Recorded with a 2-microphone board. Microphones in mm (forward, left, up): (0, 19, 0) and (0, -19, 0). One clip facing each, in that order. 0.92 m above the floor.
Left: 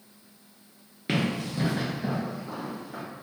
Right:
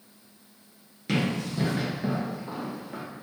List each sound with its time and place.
1.1 s running footsteps: 25° left (ahead or behind), 0.9 m; by 3.0 s 40° right (ahead or behind), 1.1 m